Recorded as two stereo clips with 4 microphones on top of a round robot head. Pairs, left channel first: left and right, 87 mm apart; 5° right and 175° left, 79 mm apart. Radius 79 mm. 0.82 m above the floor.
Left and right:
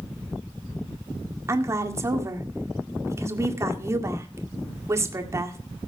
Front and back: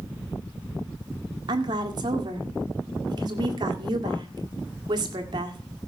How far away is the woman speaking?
About 1.9 m.